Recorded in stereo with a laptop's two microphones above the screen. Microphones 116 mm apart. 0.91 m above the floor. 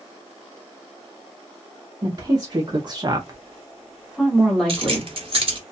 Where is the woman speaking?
35° right (ahead or behind), 1.0 m; by 5.1 s 5° left (ahead or behind), 1.4 m.